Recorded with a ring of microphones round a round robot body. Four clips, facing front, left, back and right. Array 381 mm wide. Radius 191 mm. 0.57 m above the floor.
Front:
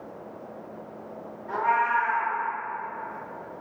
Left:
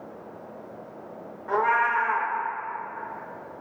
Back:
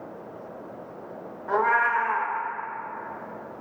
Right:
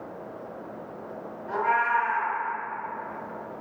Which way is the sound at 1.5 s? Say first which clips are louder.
Left 2 dB, back 1 dB; 150° left.